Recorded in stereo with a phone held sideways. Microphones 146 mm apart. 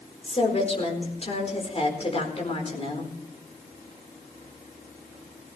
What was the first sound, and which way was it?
A woman speaking, 45° left (ahead or behind).